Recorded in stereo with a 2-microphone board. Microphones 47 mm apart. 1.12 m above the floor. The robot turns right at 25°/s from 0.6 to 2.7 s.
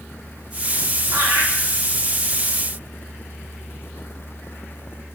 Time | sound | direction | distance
1.1 | laughter | 70° right (ahead or behind) | 0.6 m